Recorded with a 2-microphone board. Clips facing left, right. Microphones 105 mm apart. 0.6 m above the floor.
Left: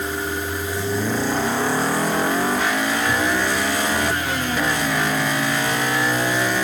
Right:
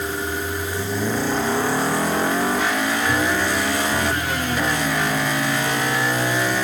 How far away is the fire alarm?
No fire alarm in this recording.